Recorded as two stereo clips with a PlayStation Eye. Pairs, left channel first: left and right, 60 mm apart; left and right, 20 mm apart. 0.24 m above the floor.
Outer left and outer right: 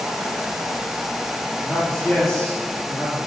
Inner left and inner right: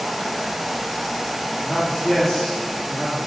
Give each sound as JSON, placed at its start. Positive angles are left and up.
{"t": 1.6, "sound": "a man speaking", "side_deg": 30, "distance_m": 6.5}